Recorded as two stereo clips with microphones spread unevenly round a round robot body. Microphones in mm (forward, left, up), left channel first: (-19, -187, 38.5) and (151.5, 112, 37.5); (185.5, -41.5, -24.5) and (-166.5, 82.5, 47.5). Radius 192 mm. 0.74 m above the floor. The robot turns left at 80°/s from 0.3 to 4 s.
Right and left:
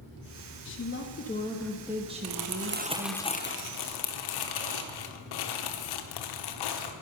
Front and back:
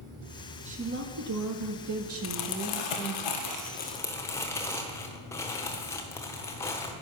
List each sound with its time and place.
0.7 s a woman speaking: 120° right, 1.2 m; by 3.2 s 30° left, 1.2 m
2.2 s crumpling: 40° left, 1.1 m; by 6.9 s 100° right, 1.1 m